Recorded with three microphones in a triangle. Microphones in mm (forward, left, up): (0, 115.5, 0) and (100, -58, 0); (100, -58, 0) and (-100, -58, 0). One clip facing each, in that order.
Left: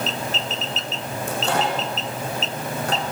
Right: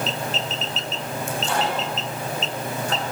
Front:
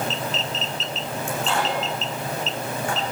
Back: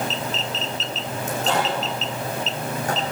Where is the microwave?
135° left, 9 m.